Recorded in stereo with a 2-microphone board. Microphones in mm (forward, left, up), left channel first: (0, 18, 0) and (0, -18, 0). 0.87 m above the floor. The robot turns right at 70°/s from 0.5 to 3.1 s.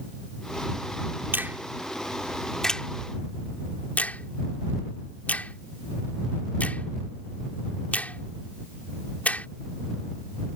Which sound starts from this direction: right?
A finger snap, at 1.3 s.